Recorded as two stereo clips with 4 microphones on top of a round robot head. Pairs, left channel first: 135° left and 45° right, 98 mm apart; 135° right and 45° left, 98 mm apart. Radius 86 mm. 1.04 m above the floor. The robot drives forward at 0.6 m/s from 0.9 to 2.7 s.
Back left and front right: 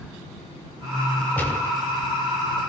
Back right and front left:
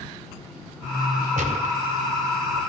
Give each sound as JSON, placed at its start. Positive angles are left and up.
{"t": 1.4, "sound": "a gunshot", "azimuth_deg": 60, "distance_m": 1.5}